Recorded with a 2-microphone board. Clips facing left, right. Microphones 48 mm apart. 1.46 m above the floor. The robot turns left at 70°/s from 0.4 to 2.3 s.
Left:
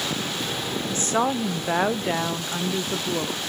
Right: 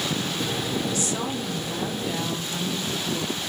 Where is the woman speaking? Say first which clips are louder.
Left 4 dB; 145° left, 0.8 m; by 3.5 s 45° left, 0.8 m.